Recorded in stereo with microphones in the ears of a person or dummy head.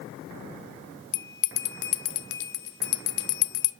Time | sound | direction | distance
1.1 | a bell | 65° left (ahead or behind) | 0.6 m